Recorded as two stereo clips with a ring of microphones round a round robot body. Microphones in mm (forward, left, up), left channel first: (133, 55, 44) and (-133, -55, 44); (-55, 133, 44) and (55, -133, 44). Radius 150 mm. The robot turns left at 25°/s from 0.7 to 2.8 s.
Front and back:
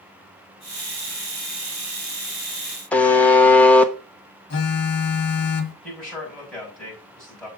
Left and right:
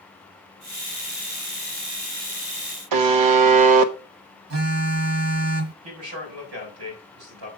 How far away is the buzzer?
About 0.8 m.